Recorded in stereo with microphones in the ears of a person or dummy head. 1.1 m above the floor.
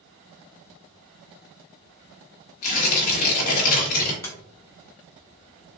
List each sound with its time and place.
2.6 s tearing paper: 50° left (ahead or behind), 1.2 m
4.2 s a sliding door: 15° left (ahead or behind), 0.6 m